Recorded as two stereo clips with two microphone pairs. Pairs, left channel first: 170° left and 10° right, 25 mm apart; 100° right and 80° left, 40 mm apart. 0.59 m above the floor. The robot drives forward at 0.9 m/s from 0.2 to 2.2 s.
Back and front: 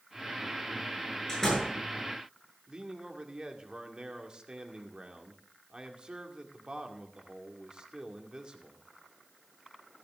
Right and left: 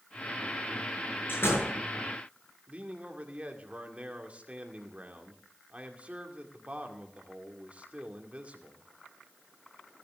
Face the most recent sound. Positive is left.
turn(degrees=30)